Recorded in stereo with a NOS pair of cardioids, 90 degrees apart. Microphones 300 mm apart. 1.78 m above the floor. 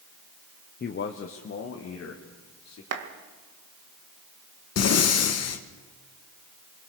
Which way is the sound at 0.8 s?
35° left.